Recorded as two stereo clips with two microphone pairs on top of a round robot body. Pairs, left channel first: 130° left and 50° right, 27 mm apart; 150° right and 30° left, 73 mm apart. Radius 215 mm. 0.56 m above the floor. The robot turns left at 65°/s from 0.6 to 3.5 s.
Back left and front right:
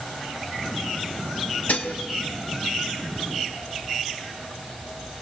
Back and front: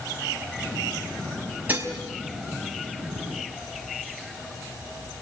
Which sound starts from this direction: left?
Dishes clattering, at 1.7 s.